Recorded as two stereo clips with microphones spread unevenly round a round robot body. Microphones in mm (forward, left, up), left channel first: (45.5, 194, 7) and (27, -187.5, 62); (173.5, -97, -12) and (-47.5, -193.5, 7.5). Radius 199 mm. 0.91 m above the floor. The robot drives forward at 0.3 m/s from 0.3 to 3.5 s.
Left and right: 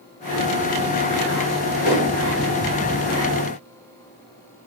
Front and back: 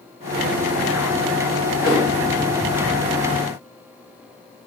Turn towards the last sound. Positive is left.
turn(degrees=165)